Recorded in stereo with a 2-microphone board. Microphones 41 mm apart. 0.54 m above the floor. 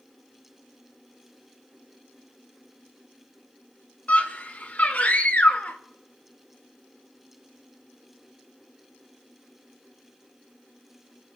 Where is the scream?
40° left (ahead or behind), 2.0 m.